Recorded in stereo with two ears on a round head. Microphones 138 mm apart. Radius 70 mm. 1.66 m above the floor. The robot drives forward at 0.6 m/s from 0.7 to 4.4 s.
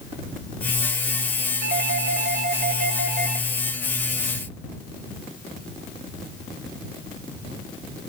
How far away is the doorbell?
About 4 m.